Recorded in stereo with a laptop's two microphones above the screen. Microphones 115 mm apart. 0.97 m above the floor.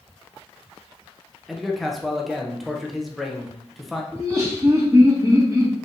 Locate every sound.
1.5 s a man speaking: centre (ahead or behind), 0.6 m
4.1 s laughter: 30° right (ahead or behind), 2 m